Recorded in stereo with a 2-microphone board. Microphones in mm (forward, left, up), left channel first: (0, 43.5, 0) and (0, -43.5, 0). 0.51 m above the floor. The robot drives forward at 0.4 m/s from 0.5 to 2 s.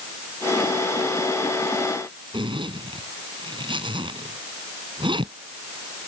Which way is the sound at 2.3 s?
70° right (ahead or behind).